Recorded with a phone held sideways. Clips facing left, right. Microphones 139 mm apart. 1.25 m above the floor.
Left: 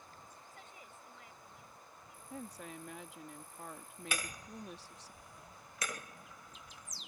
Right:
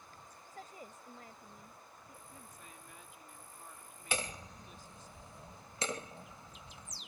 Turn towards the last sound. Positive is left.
turn(degrees=-25)  # may be behind; listen again after turning